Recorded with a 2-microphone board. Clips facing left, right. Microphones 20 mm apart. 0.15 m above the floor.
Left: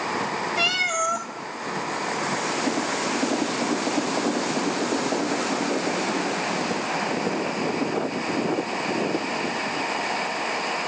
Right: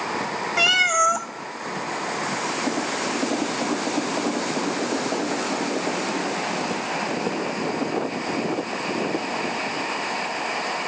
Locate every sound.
0.6 s a cat meowing: 55° right (ahead or behind), 0.7 m